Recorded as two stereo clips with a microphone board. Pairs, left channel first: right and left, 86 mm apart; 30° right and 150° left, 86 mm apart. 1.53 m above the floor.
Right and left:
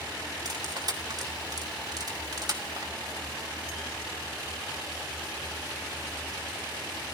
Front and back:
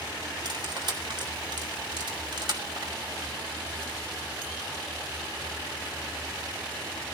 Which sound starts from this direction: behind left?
Cutlery clinking, at 0.5 s.